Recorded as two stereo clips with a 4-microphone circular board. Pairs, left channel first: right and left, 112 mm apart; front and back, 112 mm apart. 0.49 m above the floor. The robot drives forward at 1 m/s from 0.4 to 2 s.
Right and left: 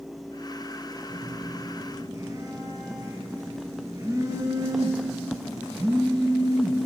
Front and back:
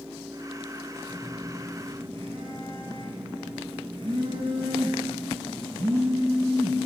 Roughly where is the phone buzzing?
Left.